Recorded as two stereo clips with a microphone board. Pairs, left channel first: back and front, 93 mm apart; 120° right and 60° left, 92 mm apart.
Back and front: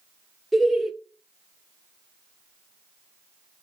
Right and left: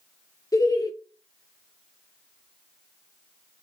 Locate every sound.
0.5 s laughter: 90° right, 0.6 m